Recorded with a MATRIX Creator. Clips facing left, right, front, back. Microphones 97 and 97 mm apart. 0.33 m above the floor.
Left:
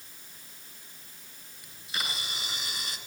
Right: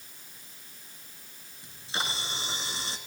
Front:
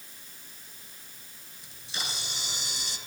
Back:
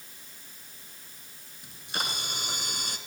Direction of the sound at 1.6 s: 150° right.